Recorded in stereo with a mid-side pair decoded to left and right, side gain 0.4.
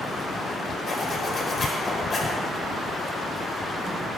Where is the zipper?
50° left, 4 m.